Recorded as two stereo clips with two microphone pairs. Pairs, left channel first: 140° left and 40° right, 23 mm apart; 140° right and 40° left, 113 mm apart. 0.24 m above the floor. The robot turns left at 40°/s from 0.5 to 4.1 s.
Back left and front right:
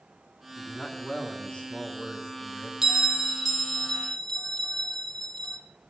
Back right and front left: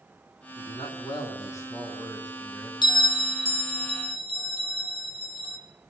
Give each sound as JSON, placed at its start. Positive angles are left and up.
{"t": 0.6, "sound": "a man speaking", "azimuth_deg": -155, "distance_m": 2.0}
{"t": 2.8, "sound": "a bell", "azimuth_deg": -105, "distance_m": 1.2}